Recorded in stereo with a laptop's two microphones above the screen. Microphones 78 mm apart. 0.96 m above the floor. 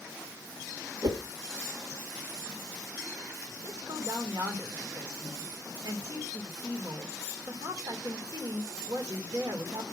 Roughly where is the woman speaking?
Right.